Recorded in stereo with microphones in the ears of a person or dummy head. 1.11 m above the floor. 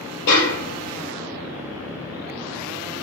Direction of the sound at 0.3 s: 60° left (ahead or behind).